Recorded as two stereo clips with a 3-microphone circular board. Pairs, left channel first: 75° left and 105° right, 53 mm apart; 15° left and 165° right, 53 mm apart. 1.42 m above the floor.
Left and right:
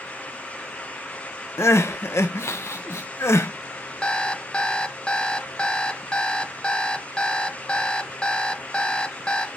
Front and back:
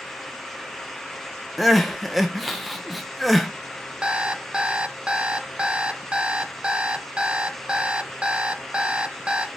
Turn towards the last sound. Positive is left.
turn(degrees=135)